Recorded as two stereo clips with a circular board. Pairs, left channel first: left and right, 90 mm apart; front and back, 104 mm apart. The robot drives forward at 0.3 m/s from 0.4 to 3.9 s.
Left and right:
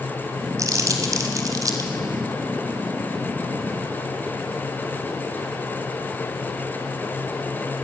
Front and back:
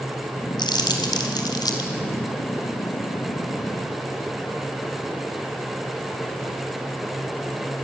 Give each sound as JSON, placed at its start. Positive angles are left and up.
{"t": 0.6, "sound": "crumpling", "azimuth_deg": -40, "distance_m": 3.0}